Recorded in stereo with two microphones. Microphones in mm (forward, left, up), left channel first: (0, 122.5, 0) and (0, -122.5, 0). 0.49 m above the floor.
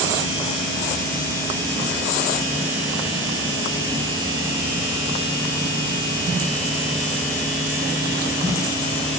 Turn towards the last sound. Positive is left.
No sound to turn to.